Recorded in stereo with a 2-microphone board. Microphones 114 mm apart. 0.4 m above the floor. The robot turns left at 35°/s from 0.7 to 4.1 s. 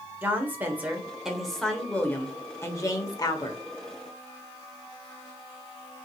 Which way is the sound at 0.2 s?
155° right.